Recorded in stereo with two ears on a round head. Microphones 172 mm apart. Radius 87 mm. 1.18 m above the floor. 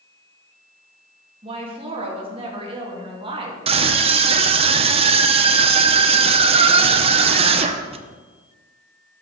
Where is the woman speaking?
30° right (ahead or behind), 2 m.